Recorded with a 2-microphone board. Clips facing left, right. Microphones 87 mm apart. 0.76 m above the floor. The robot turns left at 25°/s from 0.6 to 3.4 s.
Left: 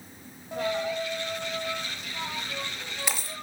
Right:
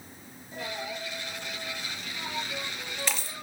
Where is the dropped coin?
70° left (ahead or behind), 2.5 m; by 3.4 s centre (ahead or behind), 2.5 m.